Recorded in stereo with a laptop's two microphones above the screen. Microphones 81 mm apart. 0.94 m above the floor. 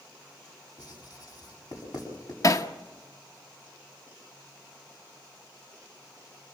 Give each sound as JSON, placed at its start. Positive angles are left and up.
{"t": 0.8, "sound": "writing", "side_deg": 55, "distance_m": 7.5}
{"t": 2.4, "sound": "hammering", "side_deg": 45, "distance_m": 0.9}